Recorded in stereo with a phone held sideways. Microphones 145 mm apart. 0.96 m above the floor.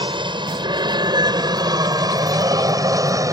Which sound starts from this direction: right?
An aircraft, at 0.0 s.